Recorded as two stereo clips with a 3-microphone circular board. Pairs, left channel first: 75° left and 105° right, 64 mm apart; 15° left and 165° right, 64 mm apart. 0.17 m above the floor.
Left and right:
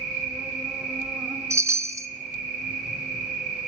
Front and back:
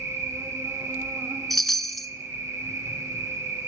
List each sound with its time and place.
0.0 s an insect: straight behind, 1.0 m
1.5 s a chime: 70° right, 0.5 m